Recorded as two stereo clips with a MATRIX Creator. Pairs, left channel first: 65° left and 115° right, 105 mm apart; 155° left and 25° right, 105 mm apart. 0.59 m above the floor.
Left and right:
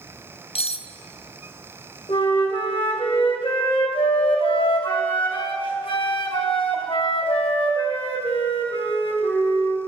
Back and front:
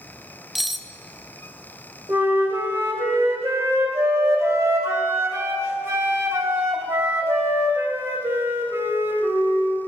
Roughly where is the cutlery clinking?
Ahead left.